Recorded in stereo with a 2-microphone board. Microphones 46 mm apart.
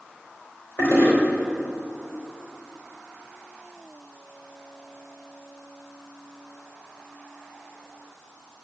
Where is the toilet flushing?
50° left (ahead or behind), 4 m.